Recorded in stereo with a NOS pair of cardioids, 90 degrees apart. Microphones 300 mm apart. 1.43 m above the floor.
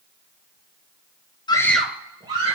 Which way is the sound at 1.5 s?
15° left.